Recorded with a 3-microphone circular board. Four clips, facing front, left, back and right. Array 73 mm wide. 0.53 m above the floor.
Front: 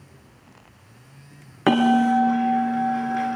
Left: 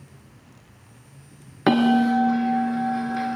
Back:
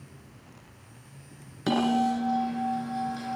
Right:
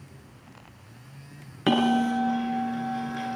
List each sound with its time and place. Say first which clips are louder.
1.7 s a bell: left 4 dB, front 7 dB; 40° left, 3.5 m